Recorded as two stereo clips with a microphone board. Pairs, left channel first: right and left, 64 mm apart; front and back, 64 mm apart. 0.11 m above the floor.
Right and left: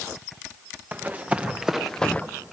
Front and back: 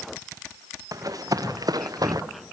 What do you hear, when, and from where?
0.9 s running footsteps: 150° left, 1.9 m; by 2.2 s 155° right, 0.9 m